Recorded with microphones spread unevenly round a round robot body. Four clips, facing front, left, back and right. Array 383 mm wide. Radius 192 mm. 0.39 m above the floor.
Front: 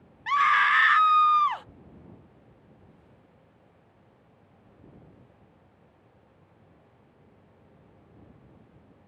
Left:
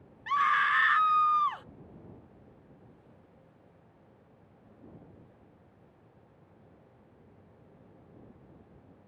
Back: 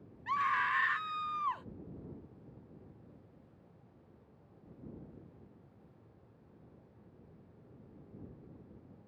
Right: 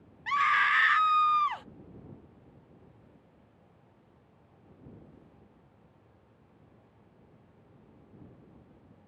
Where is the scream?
25° right.